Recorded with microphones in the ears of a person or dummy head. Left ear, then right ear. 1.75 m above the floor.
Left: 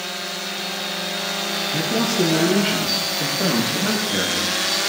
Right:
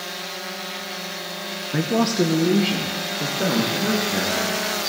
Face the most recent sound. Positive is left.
turn(degrees=0)  # may be behind; listen again after turning